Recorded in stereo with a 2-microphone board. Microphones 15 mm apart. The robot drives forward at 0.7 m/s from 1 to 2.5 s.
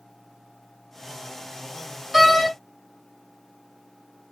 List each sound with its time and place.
2.1 s a door slam: 5° right (ahead or behind), 1.6 m